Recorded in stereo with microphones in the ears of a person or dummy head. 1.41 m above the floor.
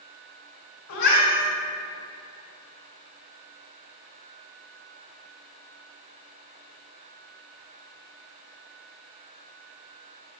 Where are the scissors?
I don't hear scissors.